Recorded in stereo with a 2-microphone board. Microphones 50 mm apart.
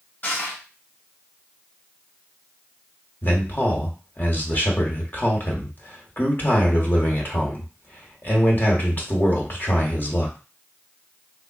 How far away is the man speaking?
About 1.1 m.